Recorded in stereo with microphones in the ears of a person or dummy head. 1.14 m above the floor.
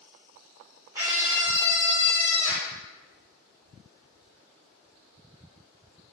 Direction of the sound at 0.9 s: 10° right (ahead or behind).